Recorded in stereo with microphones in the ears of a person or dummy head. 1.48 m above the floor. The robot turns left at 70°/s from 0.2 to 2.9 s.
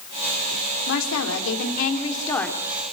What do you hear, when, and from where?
0.9 s a woman speaking: 120° left, 4 m; by 2.6 s straight ahead, 4 m